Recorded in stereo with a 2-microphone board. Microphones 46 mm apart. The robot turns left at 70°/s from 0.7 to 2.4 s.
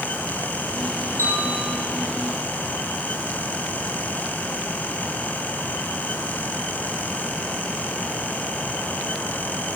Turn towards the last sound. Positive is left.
turn(degrees=45)